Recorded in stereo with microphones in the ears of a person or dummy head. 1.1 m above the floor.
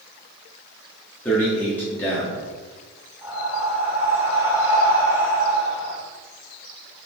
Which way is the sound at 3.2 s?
15° right (ahead or behind).